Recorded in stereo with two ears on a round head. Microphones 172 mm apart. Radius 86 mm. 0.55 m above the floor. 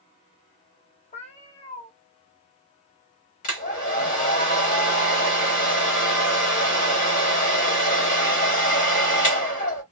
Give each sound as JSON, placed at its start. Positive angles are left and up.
{"t": 1.1, "sound": "a cat meowing", "side_deg": 35, "distance_m": 0.9}
{"t": 3.4, "sound": "a hair dryer", "side_deg": 40, "distance_m": 1.5}